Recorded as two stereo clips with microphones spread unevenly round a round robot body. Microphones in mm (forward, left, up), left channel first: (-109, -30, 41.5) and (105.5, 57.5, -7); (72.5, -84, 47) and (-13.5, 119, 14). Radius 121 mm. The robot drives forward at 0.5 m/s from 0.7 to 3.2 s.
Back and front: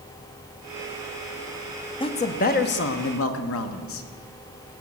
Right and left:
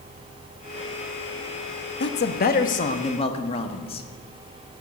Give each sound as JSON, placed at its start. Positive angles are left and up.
{"t": 2.0, "sound": "a man speaking", "azimuth_deg": -85, "distance_m": 0.9}